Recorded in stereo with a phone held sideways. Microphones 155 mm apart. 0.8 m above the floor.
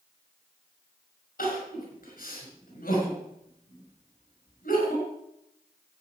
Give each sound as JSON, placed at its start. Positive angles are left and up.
{"t": 1.4, "sound": "crying", "side_deg": 70, "distance_m": 6.0}